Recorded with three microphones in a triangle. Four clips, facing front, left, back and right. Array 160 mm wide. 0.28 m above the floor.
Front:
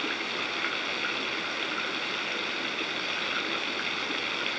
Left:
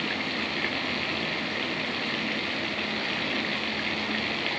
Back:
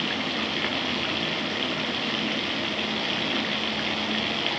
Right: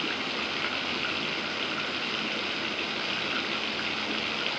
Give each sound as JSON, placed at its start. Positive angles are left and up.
{"t": 0.0, "sound": "running water", "azimuth_deg": 160}